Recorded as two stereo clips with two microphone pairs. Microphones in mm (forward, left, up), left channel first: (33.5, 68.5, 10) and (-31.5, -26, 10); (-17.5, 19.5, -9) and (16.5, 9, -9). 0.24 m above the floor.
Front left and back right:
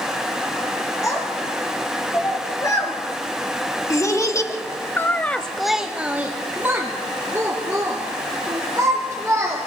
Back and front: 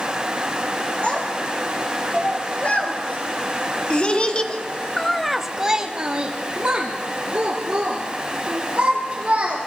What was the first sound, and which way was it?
A child speaking, 115° left.